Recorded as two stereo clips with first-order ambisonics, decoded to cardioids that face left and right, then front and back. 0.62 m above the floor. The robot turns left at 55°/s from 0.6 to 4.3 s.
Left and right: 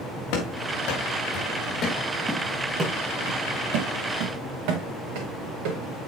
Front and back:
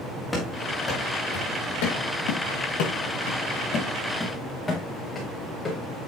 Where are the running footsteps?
75° left, 3 m; by 5.8 s 70° right, 4 m.